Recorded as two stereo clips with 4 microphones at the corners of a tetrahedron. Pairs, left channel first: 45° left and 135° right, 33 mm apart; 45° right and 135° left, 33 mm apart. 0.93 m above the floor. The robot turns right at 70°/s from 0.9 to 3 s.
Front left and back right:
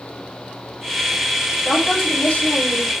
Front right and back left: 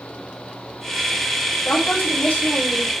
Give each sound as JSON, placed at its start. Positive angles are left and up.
{"t": 1.6, "sound": "a woman speaking", "azimuth_deg": -65, "distance_m": 6.0}